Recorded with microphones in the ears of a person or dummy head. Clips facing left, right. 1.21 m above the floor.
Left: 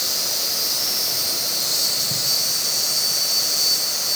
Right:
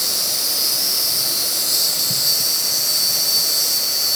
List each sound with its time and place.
0.0 s an insect: 50° right (ahead or behind), 6 m